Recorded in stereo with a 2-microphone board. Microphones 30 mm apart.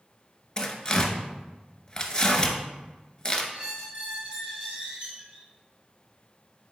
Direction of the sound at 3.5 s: 40° right (ahead or behind).